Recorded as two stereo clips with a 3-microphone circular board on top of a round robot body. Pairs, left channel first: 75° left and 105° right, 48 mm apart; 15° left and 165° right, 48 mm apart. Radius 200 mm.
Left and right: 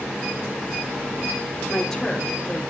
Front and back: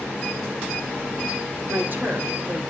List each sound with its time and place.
1.7 s a woman speaking: 155° left, 3.5 m